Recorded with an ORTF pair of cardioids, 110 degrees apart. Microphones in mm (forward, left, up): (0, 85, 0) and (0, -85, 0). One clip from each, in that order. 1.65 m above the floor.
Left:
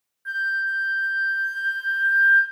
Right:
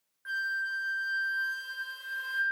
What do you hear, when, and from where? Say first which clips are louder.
0.2 s a flute: left 8 dB; straight ahead, 0.7 m